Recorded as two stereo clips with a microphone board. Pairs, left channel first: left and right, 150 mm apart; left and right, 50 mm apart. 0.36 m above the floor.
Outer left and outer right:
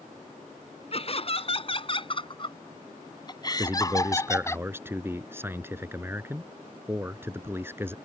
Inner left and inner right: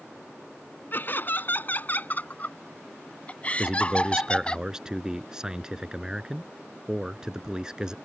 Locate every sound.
0.9 s laughter: 40° left (ahead or behind); by 4.6 s 20° left (ahead or behind)
3.6 s a man speaking: 15° right (ahead or behind)